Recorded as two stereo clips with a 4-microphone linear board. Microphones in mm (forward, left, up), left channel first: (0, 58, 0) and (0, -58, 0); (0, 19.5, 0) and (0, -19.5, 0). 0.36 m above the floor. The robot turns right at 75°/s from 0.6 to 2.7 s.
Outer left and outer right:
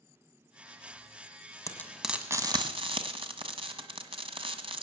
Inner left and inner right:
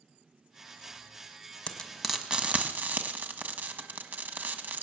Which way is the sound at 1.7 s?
25° left (ahead or behind).